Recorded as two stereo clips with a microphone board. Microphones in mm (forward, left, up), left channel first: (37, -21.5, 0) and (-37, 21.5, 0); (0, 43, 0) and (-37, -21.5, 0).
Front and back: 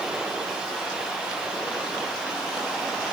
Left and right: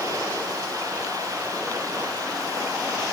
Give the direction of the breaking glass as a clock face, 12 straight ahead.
I don't hear breaking glass.